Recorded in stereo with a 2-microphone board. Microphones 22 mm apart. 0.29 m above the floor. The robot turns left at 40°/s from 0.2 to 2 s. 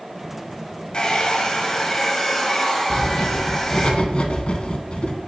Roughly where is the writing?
Left.